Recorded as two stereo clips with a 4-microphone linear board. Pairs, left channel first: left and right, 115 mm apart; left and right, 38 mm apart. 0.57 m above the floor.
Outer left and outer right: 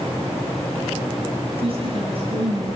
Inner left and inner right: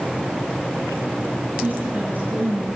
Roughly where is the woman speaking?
Right.